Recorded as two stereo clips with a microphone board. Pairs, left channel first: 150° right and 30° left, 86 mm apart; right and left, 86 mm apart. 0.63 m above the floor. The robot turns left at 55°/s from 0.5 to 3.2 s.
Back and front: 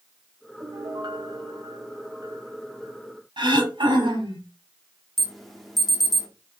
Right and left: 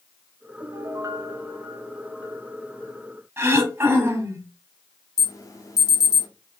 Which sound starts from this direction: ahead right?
An alarm, at 5.2 s.